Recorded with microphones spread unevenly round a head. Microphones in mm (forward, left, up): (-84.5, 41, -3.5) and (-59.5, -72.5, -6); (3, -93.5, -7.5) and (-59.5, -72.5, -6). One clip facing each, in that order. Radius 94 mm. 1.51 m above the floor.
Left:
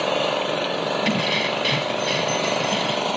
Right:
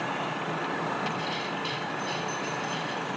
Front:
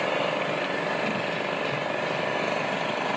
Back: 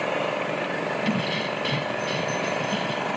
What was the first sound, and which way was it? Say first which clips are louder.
An engine running: left 9 dB, even; 75° left.